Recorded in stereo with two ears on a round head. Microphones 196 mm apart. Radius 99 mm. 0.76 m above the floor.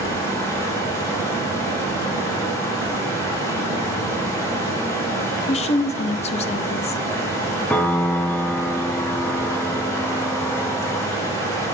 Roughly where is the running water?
Centre.